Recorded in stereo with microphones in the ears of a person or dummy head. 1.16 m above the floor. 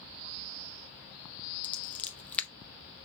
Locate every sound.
1.6 s scissors: 5° left (ahead or behind), 0.6 m